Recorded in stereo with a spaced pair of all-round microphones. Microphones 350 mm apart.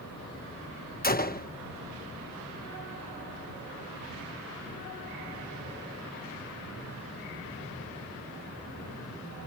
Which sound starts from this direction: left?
A gunshot, at 1.0 s.